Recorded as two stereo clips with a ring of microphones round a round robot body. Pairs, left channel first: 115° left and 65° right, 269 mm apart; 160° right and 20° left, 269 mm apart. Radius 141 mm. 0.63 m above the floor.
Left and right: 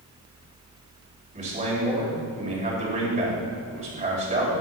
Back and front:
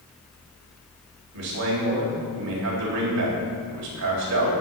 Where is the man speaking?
Straight ahead, 4 m.